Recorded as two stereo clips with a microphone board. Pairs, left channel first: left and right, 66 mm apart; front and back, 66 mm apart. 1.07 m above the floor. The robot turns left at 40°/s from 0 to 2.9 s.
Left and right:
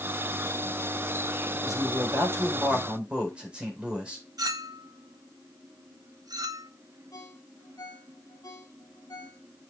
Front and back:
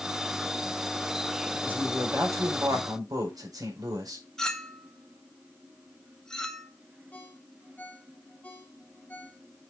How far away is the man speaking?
About 5 m.